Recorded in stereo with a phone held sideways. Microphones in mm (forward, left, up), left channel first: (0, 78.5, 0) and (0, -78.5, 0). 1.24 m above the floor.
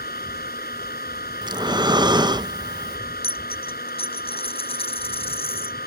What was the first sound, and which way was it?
A fan, 75° left (ahead or behind).